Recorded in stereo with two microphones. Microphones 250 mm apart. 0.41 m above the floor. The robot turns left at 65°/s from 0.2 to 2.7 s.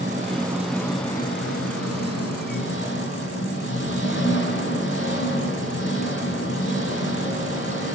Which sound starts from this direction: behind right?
An engine running, at 0.0 s.